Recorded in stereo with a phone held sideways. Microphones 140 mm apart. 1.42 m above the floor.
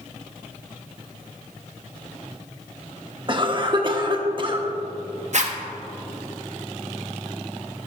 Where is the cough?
35° right (ahead or behind), 1.0 m.